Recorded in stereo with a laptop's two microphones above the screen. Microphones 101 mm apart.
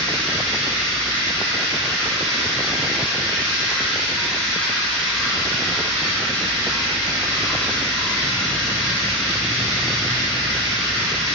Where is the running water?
10° left (ahead or behind), 1.6 m.